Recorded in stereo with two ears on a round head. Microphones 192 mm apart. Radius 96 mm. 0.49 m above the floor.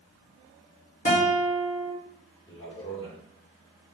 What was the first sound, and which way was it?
A guitar, 40° left (ahead or behind).